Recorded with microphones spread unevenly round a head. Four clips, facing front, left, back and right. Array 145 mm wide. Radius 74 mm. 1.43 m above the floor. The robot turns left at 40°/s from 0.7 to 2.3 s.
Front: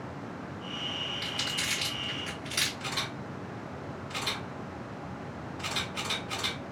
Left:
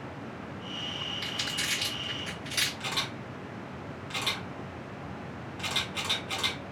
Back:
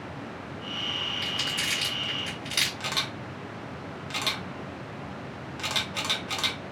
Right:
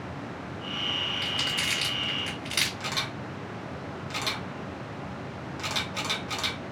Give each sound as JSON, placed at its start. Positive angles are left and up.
{"t": 1.2, "sound": "crumpling", "azimuth_deg": -90, "distance_m": 1.7}
{"t": 2.8, "sound": "a camera shutter", "azimuth_deg": 180, "distance_m": 0.9}